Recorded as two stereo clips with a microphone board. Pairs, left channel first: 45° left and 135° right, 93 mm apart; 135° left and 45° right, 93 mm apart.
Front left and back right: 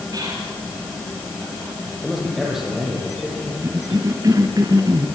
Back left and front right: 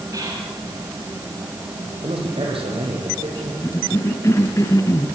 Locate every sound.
0.1 s whispering: 90° right, 3 m
2.0 s a man speaking: 45° right, 9.5 m
3.6 s a cough: 175° right, 2 m